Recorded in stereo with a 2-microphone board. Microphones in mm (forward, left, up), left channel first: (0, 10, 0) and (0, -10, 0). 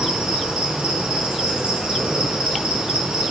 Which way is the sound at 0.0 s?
75° right (ahead or behind).